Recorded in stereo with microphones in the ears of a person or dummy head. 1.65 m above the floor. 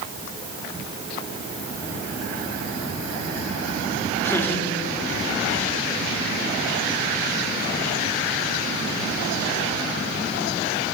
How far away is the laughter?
About 3.5 m.